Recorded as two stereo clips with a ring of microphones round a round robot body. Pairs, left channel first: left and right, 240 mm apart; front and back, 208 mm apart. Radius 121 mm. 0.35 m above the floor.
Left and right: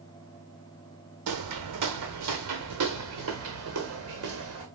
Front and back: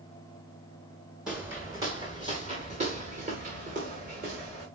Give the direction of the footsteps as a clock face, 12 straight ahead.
3 o'clock.